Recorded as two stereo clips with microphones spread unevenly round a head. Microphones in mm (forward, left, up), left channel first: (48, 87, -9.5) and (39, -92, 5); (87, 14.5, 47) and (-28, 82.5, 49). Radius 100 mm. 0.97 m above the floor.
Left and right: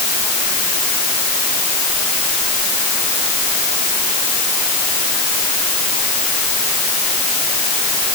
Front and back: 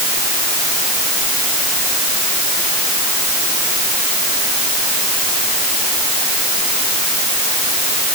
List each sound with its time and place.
Only background noise.